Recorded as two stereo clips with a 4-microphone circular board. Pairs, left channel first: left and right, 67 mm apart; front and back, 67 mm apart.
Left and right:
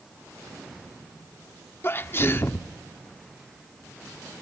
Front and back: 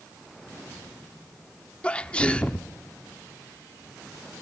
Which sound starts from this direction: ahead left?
A sneeze, at 1.8 s.